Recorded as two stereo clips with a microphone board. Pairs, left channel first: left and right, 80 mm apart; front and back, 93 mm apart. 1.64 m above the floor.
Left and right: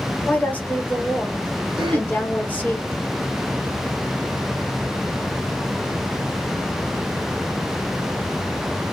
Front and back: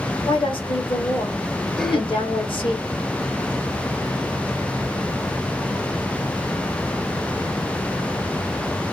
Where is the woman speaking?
20° left, 1.2 m.